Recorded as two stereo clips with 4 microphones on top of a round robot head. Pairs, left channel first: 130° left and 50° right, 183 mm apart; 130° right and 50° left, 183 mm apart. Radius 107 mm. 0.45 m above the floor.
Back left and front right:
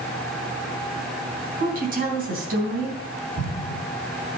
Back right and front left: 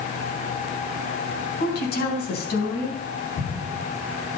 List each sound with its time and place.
1.6 s a woman speaking: 95° right, 3.5 m
3.4 s an explosion: 125° right, 7 m